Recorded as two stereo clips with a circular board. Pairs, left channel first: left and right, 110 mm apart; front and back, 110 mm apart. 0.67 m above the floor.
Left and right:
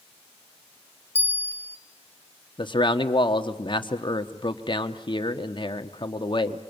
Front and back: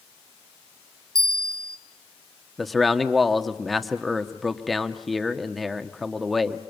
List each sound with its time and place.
1.1 s a bell: 150° left, 1.1 m
2.6 s a man speaking: 90° left, 1.3 m